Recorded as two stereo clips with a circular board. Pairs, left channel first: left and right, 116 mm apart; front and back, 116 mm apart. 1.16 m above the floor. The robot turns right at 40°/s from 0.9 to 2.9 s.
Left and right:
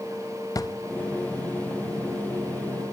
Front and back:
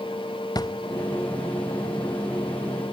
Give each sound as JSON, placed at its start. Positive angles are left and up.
{"t": 0.6, "sound": "a drawer", "azimuth_deg": 40, "distance_m": 0.6}